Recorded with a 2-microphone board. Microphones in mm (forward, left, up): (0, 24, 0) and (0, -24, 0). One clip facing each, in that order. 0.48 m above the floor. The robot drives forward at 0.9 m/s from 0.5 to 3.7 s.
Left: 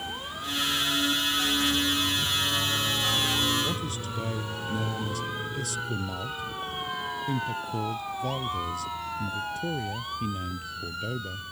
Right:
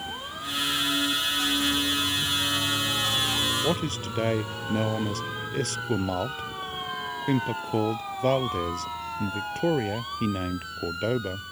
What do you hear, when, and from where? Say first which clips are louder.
3.6 s a man speaking: right 4 dB; 55° right (ahead or behind)